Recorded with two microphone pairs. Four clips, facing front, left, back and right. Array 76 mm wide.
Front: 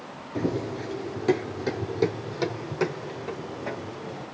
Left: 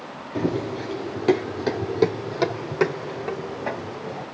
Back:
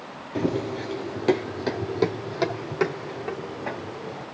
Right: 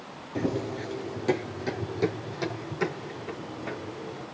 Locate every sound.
0.3 s running footsteps: 155° left, 1.7 m; by 4.2 s 115° left, 4 m